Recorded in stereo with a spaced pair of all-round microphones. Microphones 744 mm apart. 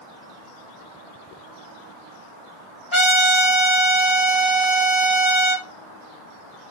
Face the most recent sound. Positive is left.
turn(degrees=50)  # may be behind; listen again after turning